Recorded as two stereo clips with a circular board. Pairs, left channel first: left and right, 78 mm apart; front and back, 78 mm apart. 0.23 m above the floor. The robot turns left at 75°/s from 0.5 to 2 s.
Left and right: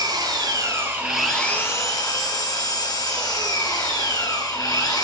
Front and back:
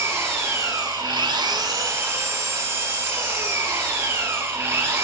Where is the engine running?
125° right, 2 m; by 5.0 s 125° left, 2 m.